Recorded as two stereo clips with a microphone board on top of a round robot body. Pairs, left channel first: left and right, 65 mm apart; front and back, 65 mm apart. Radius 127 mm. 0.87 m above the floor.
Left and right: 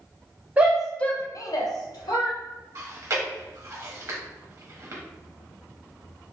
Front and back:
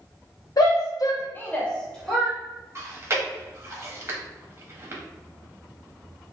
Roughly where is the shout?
Ahead right.